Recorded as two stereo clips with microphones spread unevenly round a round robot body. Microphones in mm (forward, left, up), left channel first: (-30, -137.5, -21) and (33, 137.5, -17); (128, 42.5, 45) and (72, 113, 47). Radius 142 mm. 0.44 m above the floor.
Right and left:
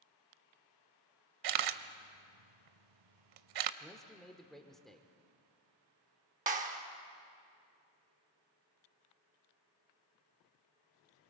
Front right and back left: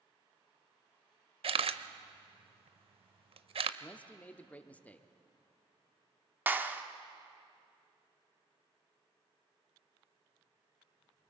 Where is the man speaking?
20° right, 0.8 m.